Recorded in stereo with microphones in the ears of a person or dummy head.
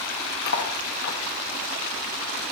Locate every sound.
0.5 s cutlery clinking: 45° left (ahead or behind), 1.5 m